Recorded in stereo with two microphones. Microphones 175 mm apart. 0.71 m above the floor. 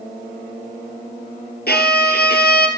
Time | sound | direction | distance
1.7 | a violin | 75° left (ahead or behind) | 3 m